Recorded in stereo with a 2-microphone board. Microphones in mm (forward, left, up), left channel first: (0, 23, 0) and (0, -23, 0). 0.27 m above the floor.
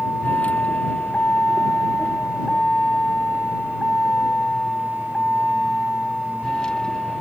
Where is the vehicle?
30° left (ahead or behind); by 7.2 s 15° left (ahead or behind).